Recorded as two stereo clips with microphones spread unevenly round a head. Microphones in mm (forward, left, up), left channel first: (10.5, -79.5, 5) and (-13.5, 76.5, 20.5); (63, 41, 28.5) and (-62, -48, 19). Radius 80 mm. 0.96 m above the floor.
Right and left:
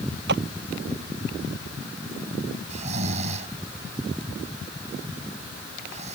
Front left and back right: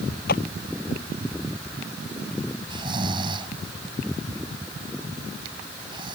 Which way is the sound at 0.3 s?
70° left.